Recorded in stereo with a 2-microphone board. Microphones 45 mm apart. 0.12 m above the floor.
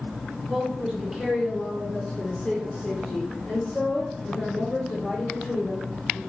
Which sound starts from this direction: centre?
A woman speaking, at 0.5 s.